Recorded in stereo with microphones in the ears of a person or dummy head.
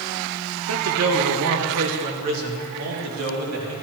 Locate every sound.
0.7 s a man speaking: 70° right (ahead or behind), 1.3 m; by 3.7 s 80° right, 3 m